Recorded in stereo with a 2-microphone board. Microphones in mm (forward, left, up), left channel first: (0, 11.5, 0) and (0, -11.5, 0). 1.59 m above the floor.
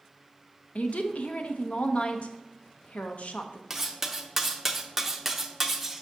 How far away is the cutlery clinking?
About 0.6 m.